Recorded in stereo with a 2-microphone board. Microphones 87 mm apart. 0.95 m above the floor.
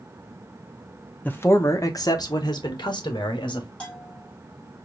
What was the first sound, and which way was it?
A man speaking, 20° left (ahead or behind).